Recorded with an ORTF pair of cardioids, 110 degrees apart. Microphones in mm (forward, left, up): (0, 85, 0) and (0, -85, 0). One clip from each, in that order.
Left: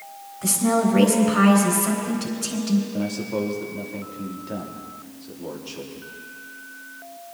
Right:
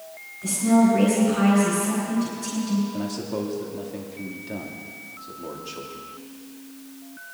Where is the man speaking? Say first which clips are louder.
Left 2 dB; straight ahead, 2 m.